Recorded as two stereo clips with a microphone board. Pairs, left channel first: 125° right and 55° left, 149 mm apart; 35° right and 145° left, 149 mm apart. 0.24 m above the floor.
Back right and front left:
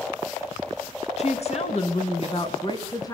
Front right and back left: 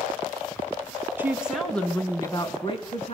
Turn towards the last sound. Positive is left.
turn(degrees=-65)